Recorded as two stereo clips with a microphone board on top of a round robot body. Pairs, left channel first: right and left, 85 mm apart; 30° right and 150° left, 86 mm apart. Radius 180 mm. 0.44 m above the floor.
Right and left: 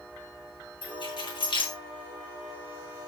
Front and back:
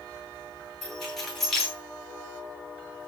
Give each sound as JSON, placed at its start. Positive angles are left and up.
{"t": 0.8, "sound": "keys jangling", "azimuth_deg": -115, "distance_m": 7.0}